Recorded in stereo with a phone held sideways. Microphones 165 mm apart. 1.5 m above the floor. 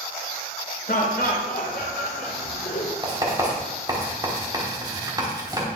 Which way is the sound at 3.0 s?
25° right (ahead or behind).